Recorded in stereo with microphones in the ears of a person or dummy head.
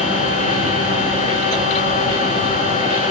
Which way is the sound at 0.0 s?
40° left (ahead or behind).